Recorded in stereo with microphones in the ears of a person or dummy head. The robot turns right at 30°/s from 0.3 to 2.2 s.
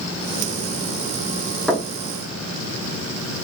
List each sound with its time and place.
1.7 s knocking: centre (ahead or behind), 0.6 m; by 1.9 s 10° right (ahead or behind), 0.6 m